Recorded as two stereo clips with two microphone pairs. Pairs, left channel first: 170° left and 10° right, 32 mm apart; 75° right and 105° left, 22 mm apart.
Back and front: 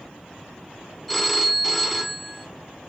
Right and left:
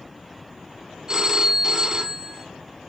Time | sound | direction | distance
1.1 | a phone ringing | 80° left | 1.0 m